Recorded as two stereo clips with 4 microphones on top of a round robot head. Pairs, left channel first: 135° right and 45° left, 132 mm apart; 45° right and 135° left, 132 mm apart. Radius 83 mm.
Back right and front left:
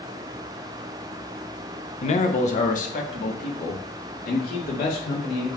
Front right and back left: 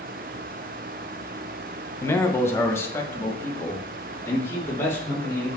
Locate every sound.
2.0 s a man speaking: 115° right, 1.2 m; by 5.6 s 120° right, 4 m